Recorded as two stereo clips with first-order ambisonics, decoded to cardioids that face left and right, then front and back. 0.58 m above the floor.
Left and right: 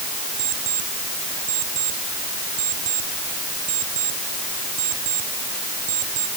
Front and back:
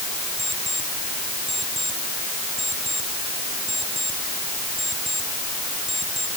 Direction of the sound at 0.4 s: 95° right.